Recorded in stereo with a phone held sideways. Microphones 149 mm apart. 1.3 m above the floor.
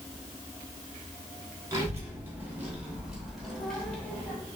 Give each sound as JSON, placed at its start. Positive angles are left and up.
{"t": 1.7, "sound": "a child speaking", "side_deg": -25, "distance_m": 2.5}